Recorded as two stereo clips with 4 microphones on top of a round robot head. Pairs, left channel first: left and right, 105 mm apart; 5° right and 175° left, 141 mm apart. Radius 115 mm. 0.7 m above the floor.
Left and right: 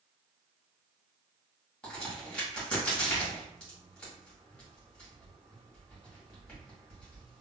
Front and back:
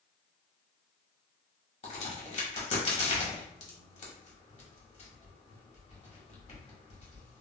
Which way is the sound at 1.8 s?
15° left.